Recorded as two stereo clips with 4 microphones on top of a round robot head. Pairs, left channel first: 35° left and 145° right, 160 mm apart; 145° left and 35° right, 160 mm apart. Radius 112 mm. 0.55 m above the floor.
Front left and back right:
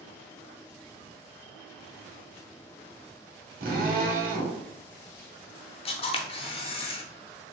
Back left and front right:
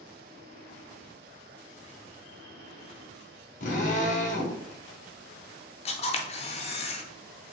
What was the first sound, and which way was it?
A drill, 175° right.